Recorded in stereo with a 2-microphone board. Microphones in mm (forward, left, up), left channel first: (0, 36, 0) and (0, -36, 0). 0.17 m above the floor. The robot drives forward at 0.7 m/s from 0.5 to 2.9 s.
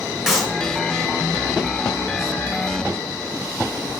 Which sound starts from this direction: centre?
A clap, at 0.3 s.